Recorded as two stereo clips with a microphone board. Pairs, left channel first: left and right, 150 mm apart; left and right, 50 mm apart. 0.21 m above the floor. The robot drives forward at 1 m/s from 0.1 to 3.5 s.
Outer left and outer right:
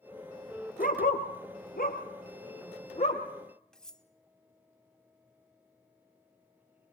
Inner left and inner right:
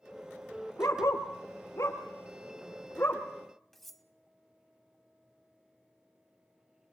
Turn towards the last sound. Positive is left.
turn(degrees=5)  # may be behind; listen again after turning